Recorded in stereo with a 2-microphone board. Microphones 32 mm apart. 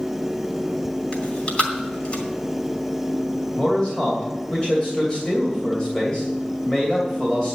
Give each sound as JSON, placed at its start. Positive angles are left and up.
{"t": 1.1, "sound": "chewing", "side_deg": 40, "distance_m": 2.5}
{"t": 3.5, "sound": "a man speaking", "side_deg": 30, "distance_m": 2.5}